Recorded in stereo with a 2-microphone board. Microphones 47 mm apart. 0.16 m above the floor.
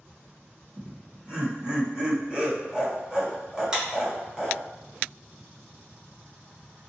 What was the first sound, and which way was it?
Laughter, 20° right (ahead or behind).